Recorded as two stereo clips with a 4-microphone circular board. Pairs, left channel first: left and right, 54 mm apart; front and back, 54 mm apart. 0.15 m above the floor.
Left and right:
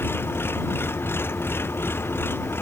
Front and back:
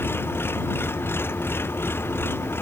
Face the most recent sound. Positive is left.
turn(degrees=45)